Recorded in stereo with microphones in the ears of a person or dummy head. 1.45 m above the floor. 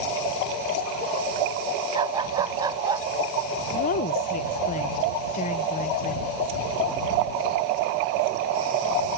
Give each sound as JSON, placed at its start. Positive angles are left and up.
{"t": 1.9, "sound": "a dog barking", "side_deg": -25}
{"t": 3.7, "sound": "a woman speaking", "side_deg": 40}